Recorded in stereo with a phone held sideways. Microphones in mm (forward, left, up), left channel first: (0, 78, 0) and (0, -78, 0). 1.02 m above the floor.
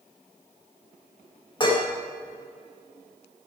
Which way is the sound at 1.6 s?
30° left (ahead or behind).